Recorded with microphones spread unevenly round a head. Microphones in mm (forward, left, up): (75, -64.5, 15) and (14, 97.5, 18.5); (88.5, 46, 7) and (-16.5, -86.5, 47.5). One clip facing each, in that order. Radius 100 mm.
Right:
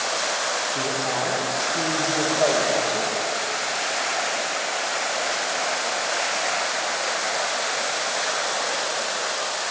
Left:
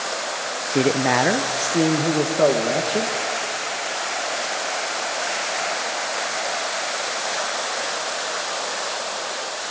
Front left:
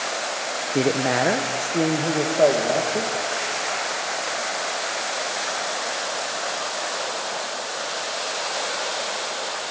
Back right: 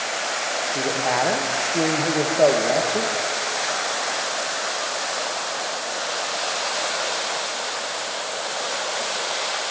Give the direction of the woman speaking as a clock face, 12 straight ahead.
9 o'clock.